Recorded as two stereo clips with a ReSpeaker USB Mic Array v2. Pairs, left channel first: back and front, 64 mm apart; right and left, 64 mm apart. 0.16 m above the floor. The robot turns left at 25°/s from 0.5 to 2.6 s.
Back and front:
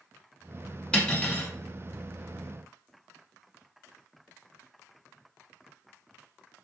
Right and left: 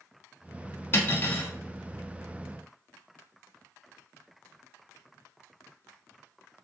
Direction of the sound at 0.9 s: 115° right.